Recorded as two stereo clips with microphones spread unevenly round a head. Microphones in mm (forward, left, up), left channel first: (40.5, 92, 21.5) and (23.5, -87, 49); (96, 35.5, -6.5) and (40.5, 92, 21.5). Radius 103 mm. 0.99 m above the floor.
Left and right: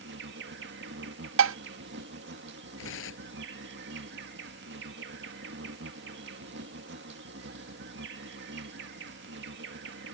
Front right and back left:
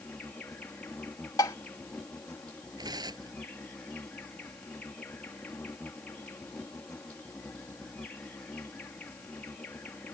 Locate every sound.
0.0 s an insect: 115° right
1.4 s dishes clattering: 120° right
2.8 s tearing paper: 105° left